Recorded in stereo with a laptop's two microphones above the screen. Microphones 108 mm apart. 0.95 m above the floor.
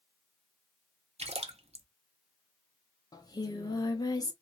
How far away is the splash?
About 0.6 m.